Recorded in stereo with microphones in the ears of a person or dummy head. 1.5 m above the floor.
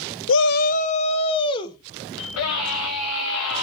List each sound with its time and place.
0.3 s a shout: 65° left (ahead or behind), 0.5 m; by 1.8 s 25° left (ahead or behind), 1.4 m
2.2 s a scream: 80° left, 3.5 m